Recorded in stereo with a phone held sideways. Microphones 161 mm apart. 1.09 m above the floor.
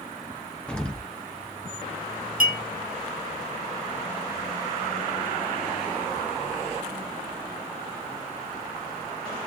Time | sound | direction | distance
0.7 | an explosion | 5° left (ahead or behind) | 0.5 m
2.4 | a clink | 65° right (ahead or behind) | 0.9 m